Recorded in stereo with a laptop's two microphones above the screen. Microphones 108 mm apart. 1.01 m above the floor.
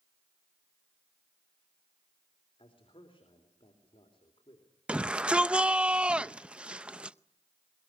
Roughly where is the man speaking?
Left.